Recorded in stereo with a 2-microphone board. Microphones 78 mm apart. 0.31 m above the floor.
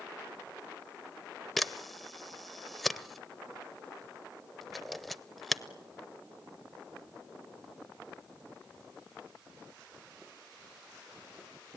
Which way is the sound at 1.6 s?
Centre (ahead or behind).